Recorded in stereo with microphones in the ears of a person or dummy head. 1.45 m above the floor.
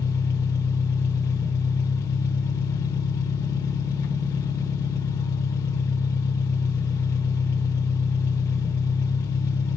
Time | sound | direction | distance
0.0 | an engine running | 20° left (ahead or behind) | 1.4 m